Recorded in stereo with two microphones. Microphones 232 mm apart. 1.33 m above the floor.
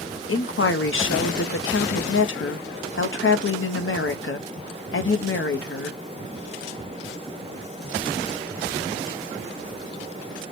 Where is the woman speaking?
55° left (ahead or behind), 0.6 m.